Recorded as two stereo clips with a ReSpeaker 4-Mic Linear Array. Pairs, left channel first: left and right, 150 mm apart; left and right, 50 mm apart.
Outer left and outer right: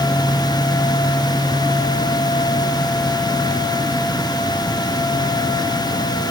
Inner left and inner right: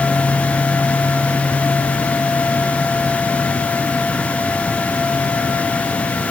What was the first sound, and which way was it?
Only background noise.